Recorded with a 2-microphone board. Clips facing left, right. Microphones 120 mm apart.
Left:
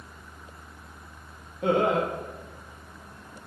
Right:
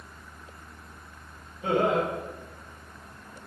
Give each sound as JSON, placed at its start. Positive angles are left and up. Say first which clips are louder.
{"t": 1.6, "sound": "laughter", "louder": "left 1 dB", "side_deg": 60, "distance_m": 4.0}